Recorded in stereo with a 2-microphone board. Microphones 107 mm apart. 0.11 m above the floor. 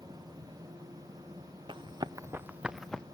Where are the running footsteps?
55° right (ahead or behind), 0.8 m; by 3.0 s 10° left (ahead or behind), 0.7 m.